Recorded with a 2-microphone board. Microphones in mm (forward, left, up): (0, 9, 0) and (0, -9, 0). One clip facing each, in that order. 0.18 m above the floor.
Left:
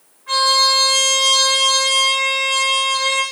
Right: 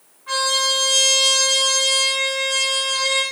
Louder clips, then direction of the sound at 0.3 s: Left 5 dB; centre (ahead or behind).